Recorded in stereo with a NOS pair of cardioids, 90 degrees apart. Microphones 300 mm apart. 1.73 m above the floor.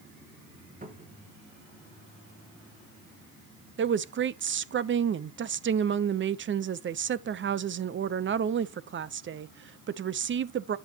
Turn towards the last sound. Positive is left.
turn(degrees=-40)